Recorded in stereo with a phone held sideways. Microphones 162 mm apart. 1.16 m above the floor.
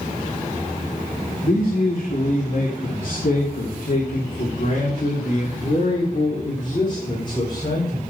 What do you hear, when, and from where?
1.4 s a man speaking: 80° left, 2.5 m; by 8.0 s 30° left (ahead or behind), 4 m